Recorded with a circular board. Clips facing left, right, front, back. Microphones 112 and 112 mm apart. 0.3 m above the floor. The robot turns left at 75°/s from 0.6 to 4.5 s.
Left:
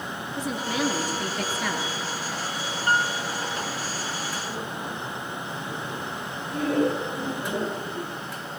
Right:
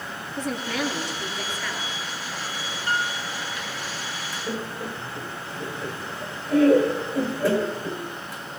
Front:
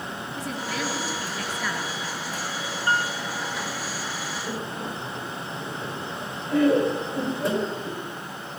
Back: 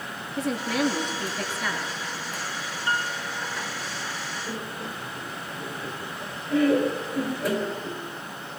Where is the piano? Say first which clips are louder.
Left 3 dB, front 3 dB; 45° left, 3 m; by 3.1 s 25° left, 3 m.